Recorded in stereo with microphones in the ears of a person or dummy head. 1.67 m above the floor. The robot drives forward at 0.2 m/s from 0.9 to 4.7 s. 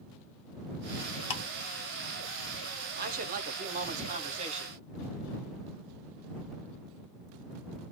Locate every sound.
1.3 s ticking: 35° left (ahead or behind), 1.5 m
2.9 s a man speaking: 50° right (ahead or behind), 0.8 m; by 4.8 s 35° right (ahead or behind), 1.1 m